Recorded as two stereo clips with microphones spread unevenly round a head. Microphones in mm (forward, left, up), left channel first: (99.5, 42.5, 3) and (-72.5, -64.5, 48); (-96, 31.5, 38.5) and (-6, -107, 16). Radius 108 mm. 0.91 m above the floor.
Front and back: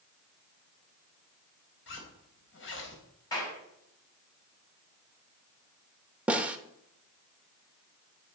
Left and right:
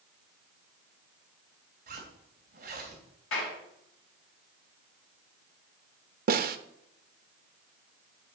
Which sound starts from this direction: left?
A clap, at 3.3 s.